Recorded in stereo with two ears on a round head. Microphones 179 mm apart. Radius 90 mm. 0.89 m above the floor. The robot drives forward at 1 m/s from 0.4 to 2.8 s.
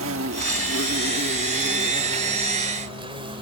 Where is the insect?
80° right; by 3.4 s 30° right (ahead or behind).